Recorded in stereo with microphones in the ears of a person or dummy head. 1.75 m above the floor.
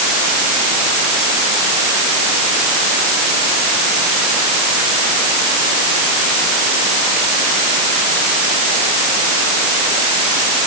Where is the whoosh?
No whoosh in this recording.